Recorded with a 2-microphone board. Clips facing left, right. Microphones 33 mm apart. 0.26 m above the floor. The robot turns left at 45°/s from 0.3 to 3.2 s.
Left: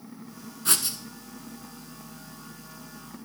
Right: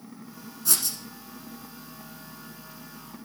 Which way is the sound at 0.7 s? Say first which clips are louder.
Left 2 dB; 50° left (ahead or behind).